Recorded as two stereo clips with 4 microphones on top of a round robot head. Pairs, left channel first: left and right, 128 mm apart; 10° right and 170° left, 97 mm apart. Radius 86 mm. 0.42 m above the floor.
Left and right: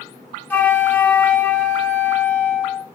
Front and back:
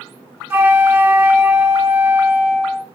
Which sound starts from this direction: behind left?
A flute, at 0.5 s.